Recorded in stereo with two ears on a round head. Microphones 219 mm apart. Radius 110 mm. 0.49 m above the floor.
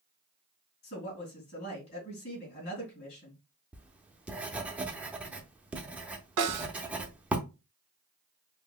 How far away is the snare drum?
About 1.6 m.